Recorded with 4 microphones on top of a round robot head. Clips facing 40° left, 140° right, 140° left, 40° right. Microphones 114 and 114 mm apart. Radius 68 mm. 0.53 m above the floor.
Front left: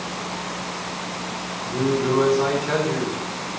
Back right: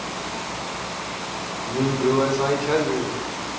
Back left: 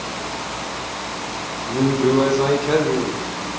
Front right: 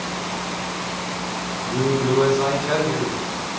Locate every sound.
1.6 s a man speaking: 160° left, 2.0 m; by 3.2 s straight behind, 1.3 m